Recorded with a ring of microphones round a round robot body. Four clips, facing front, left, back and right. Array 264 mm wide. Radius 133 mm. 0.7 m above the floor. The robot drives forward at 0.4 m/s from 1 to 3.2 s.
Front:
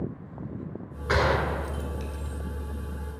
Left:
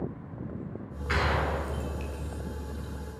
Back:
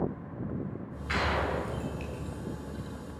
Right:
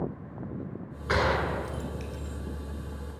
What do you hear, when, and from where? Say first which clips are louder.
1.1 s a gunshot: right 2 dB, front 5 dB; 30° right, 2.5 m; by 2.4 s 35° right, 1.9 m